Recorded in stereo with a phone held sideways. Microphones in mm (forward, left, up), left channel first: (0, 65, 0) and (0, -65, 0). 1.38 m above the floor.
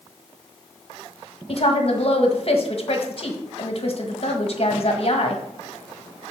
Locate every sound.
1.5 s a woman speaking: 50° left (ahead or behind), 1.6 m